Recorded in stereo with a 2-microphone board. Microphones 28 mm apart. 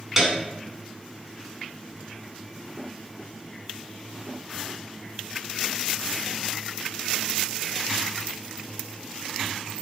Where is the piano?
15° right (ahead or behind), 1.9 m.